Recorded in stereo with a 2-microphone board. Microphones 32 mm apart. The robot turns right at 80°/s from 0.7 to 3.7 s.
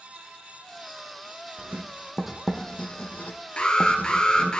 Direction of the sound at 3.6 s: 35° left (ahead or behind).